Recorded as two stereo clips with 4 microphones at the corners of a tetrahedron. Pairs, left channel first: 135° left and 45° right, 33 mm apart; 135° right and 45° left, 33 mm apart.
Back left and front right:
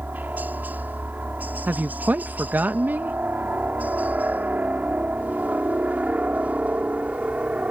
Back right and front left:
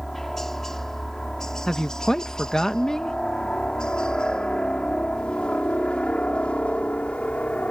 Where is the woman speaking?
60° right.